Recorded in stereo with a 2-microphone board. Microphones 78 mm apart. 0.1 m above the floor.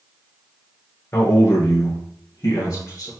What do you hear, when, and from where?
1.1 s a man speaking: 30° left (ahead or behind), 1.3 m; by 3.1 s 50° left (ahead or behind), 2 m